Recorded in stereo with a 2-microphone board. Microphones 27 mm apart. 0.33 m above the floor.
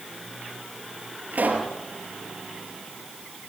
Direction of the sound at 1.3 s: 80° right.